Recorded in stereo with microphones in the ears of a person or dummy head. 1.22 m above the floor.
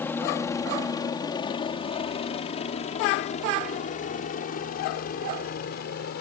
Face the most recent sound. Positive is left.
turn(degrees=55)  # may be behind; listen again after turning